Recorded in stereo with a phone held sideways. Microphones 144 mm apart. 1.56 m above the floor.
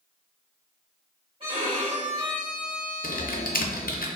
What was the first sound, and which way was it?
A violin, 40° right (ahead or behind).